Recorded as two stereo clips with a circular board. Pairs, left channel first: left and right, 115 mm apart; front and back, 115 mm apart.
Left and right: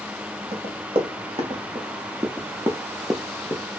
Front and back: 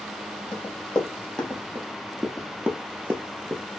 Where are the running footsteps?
80° right, 1.4 m; by 3.6 s 135° left, 0.7 m.